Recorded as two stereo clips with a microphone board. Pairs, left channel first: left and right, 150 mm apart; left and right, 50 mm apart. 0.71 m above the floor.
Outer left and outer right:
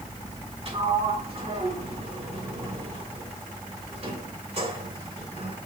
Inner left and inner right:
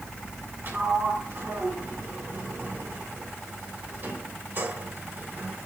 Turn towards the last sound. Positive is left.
turn(degrees=-45)  # may be behind; listen again after turning